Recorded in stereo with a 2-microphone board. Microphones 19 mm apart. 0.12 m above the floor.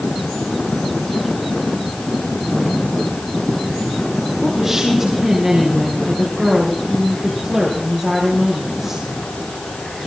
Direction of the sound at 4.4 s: 20° right (ahead or behind).